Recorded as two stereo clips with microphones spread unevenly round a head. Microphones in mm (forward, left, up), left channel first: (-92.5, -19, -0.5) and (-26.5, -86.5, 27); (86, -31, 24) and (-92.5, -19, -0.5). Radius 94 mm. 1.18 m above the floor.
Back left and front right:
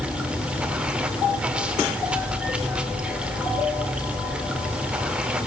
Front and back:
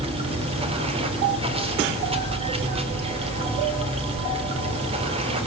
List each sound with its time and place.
0.0 s running water: 125° right, 4 m